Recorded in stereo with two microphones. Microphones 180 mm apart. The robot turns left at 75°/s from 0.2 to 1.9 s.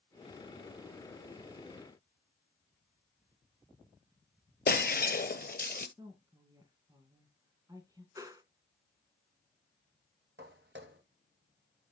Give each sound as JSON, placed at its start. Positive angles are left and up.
{"t": 4.7, "sound": "breaking glass", "side_deg": 65, "distance_m": 1.0}
{"t": 6.0, "sound": "a woman speaking", "side_deg": -20, "distance_m": 2.0}
{"t": 8.2, "sound": "a whoosh", "side_deg": -20, "distance_m": 1.2}
{"t": 10.4, "sound": "footsteps", "side_deg": -85, "distance_m": 2.0}